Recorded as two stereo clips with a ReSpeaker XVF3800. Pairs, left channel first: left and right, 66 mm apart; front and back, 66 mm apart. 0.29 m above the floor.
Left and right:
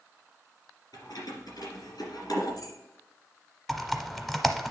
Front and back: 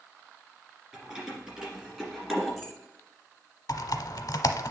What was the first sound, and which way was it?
Keys jangling, 105° left.